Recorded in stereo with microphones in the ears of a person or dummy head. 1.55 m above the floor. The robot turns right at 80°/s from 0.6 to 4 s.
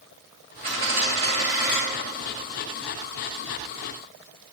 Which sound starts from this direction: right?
A dropped coin, at 0.6 s.